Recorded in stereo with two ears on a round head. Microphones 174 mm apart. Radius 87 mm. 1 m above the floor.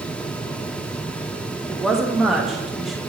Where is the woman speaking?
Centre (ahead or behind), 1.2 m.